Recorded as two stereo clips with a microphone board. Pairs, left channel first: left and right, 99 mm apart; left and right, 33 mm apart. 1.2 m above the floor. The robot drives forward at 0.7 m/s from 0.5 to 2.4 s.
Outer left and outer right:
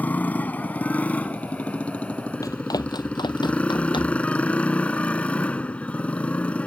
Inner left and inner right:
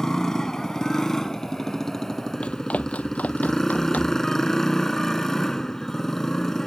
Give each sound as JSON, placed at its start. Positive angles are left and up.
{"t": 0.0, "sound": "a motorcycle", "side_deg": 15}
{"t": 2.4, "sound": "running footsteps", "side_deg": 35}